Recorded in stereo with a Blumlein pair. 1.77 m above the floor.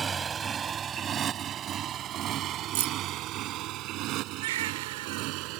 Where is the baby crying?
55° right.